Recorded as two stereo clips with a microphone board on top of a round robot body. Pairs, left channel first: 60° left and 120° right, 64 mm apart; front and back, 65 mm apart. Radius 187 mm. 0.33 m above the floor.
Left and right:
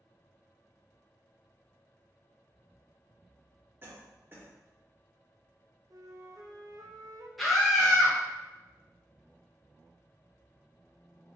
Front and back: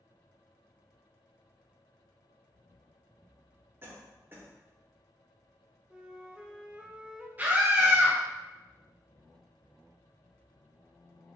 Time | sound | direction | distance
3.8 | a cough | 150° right | 1.6 m
5.9 | a flute | 105° right | 0.7 m
7.4 | a scream | 150° left | 1.1 m